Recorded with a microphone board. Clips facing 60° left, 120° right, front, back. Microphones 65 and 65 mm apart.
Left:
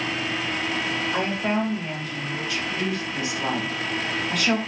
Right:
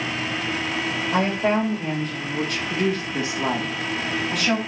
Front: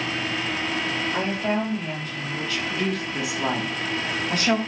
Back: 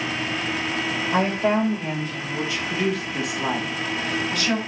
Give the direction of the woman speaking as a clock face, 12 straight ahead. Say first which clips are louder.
Right 5 dB, back 7 dB; 5 o'clock.